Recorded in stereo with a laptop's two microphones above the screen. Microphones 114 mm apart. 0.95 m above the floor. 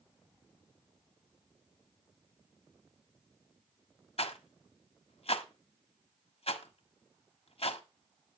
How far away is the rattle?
About 1.3 m.